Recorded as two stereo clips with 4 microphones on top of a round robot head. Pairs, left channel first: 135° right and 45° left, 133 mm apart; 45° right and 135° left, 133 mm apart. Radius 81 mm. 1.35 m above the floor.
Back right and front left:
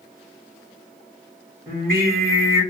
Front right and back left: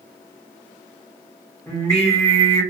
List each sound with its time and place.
1.7 s singing: 25° left, 1.9 m